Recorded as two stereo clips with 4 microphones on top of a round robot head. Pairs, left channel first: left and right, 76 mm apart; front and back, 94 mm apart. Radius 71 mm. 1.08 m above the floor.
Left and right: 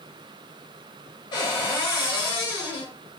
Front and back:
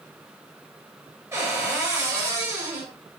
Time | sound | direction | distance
1.3 | a cupboard door | 120° left | 2.0 m